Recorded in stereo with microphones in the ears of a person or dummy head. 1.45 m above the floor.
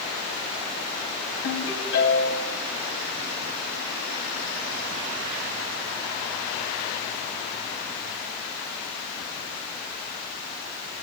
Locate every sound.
1.4 s a ringtone: 65° left (ahead or behind), 5 m